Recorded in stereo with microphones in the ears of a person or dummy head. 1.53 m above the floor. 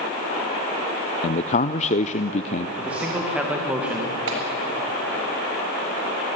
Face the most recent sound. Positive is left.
turn(degrees=-80)